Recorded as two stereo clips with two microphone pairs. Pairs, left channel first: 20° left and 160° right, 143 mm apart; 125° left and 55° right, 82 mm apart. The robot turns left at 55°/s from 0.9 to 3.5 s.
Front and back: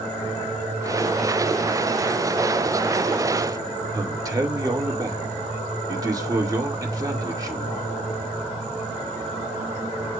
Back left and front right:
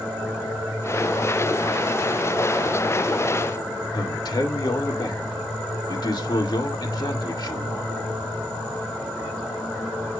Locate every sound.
3.9 s a man speaking: 140° left, 2 m